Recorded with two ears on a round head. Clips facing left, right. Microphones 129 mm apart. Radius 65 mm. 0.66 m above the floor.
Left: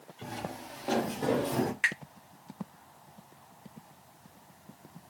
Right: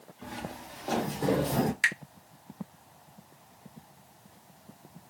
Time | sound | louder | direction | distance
0.2 | footsteps | left 1 dB | 30° left (ahead or behind) | 1.6 m
1.8 | a finger snap | right 2 dB | 45° right (ahead or behind) | 1.0 m